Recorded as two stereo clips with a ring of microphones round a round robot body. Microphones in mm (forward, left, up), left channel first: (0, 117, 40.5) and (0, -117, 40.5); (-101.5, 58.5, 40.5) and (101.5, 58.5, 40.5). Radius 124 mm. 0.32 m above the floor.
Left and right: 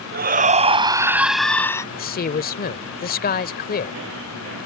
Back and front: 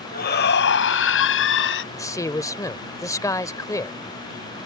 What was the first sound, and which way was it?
A shout, 135° right.